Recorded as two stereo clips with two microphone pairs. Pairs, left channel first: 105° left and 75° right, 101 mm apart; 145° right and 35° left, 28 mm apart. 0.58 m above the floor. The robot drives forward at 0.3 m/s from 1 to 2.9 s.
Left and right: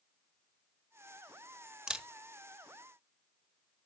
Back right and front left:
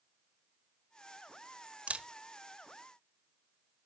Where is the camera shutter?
5° left, 0.6 m; by 2.1 s 10° left, 0.6 m.